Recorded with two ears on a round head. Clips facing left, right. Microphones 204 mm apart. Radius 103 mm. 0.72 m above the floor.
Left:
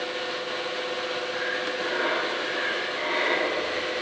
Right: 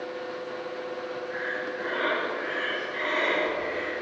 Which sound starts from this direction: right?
Breathing, at 1.3 s.